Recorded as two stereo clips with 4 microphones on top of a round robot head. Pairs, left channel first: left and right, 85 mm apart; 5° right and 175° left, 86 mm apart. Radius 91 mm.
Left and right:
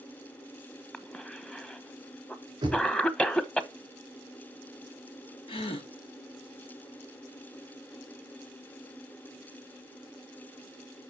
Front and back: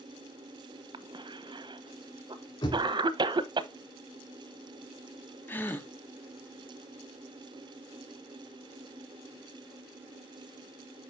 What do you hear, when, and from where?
0.9 s a cough: 165° left, 1.2 m
2.6 s knocking: 40° right, 4.5 m
5.5 s a gasp: 65° left, 1.4 m